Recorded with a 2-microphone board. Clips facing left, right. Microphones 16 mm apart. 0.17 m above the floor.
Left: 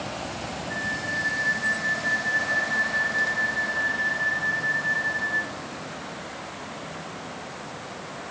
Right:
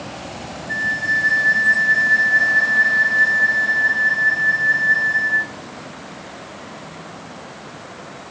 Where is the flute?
45° right (ahead or behind), 1.1 m.